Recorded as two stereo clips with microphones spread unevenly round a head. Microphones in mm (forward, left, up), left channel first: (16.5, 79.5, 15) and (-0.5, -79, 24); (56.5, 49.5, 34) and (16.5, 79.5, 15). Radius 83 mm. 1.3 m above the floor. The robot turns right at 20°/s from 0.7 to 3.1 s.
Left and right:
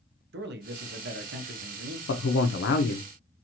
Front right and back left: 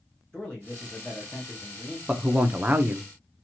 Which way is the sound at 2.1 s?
70° left.